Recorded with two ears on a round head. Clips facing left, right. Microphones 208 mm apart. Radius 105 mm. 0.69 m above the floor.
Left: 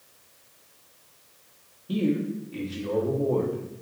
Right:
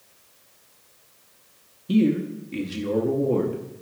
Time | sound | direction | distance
1.9 | a man speaking | 30° right (ahead or behind) | 0.8 m